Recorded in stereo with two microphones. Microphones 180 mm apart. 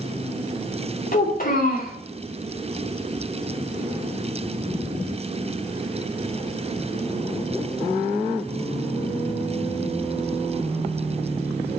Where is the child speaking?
50° left (ahead or behind), 2.5 m.